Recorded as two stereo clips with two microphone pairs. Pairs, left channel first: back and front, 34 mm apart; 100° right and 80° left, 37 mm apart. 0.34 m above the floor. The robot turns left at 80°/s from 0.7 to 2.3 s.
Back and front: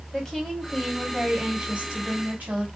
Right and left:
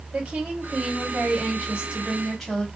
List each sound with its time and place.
0.1 s a woman speaking: 110° left, 1.8 m; by 2.7 s 15° right, 1.8 m